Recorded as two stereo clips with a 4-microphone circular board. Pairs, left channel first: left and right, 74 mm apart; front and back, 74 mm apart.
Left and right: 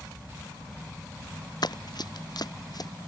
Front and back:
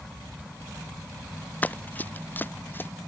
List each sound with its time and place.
1.6 s running footsteps: 65° left; by 2.9 s 60° left